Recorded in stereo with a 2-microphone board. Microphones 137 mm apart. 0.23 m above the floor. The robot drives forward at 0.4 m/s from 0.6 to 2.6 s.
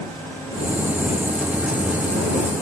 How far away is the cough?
No cough in this recording.